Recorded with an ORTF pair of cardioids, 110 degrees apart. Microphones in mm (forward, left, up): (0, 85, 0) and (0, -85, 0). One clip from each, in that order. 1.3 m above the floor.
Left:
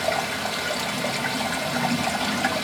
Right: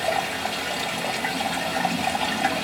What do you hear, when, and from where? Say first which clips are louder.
0.0 s running water: even; 20° left, 2.5 m